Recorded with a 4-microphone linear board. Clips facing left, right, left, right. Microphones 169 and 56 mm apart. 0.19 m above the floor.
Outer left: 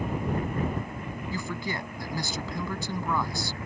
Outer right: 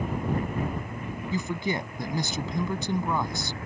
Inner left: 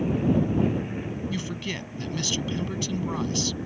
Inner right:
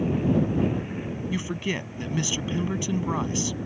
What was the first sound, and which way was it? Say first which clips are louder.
A man speaking: outer right 5 dB, inner right 3 dB; 20° right (ahead or behind).